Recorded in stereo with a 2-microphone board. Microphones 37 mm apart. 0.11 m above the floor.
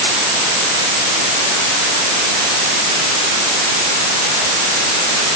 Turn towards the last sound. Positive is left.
No sound to turn to.